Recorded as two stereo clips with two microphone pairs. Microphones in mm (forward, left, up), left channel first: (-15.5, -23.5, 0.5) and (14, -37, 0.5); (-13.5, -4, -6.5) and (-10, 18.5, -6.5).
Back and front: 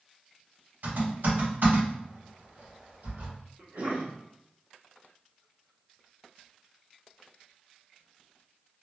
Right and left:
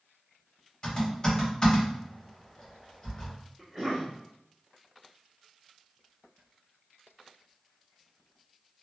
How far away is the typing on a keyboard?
About 1.7 m.